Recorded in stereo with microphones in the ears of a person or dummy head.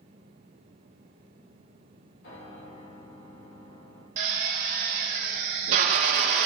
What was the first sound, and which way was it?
A piano, 70° left (ahead or behind).